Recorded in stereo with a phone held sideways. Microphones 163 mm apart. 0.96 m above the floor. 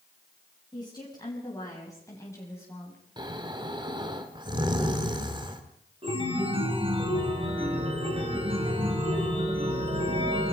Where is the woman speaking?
25° left (ahead or behind), 6.5 m; by 3.0 s 15° left (ahead or behind), 5.5 m.